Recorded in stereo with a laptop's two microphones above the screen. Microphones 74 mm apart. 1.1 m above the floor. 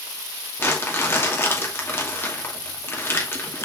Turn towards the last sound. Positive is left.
turn(degrees=35)  # may be behind; listen again after turning